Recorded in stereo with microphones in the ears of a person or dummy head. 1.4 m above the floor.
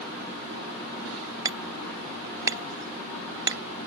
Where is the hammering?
20° right (ahead or behind).